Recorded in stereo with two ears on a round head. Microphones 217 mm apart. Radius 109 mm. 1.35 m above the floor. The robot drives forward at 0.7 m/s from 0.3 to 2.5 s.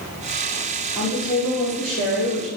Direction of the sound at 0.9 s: 5° left (ahead or behind).